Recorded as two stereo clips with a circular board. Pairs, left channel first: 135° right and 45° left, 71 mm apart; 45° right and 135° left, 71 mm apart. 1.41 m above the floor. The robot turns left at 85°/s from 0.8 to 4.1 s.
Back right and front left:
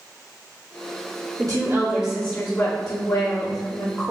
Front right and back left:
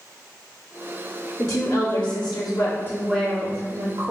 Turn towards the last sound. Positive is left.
turn(degrees=150)